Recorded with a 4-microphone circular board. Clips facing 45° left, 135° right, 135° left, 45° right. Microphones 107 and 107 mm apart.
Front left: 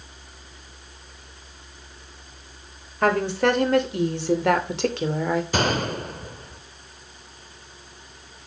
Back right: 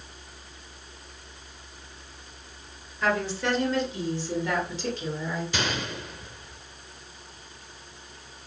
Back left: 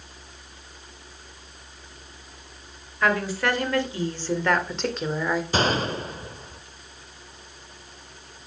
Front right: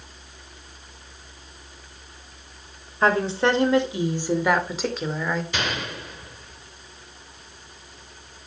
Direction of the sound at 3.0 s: 15° left.